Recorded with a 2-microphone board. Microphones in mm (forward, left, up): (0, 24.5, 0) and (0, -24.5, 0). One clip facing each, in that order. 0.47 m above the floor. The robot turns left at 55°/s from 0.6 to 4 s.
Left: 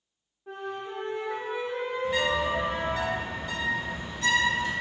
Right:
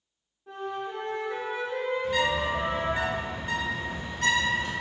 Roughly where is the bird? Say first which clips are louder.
Left 2 dB; ahead.